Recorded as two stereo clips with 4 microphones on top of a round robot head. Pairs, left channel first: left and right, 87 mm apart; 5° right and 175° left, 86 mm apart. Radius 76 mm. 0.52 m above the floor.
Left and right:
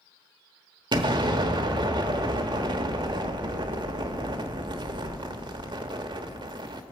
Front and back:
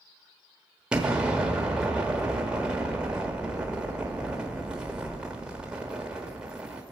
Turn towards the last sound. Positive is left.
turn(degrees=-105)